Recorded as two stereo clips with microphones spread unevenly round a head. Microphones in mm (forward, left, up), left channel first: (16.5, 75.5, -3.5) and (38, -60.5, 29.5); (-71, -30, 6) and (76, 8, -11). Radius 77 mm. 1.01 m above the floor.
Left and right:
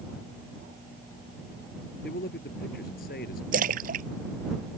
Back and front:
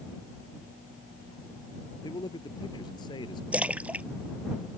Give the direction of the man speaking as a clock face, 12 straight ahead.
8 o'clock.